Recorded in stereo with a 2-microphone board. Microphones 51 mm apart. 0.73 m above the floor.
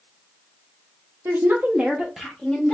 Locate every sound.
1.2 s a woman speaking: 50° right (ahead or behind), 0.8 m; by 2.7 s 20° left (ahead or behind), 0.9 m